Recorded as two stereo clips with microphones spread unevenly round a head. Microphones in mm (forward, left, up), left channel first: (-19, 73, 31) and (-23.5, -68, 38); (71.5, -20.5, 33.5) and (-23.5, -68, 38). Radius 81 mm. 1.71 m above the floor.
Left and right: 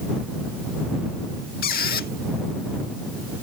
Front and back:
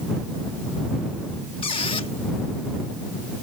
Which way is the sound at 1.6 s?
80° left.